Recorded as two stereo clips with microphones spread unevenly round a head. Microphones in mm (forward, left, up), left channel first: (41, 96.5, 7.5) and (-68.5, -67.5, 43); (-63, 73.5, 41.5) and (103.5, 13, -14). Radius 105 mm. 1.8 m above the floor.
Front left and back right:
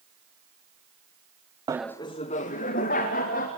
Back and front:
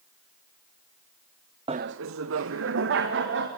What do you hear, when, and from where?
1.7 s laughter: 100° right, 0.5 m; by 3.5 s straight ahead, 3 m